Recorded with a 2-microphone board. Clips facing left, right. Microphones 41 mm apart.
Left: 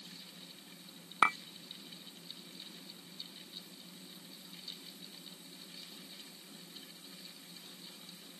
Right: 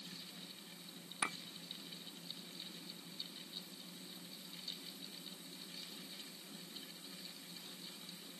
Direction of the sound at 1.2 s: 55° left (ahead or behind).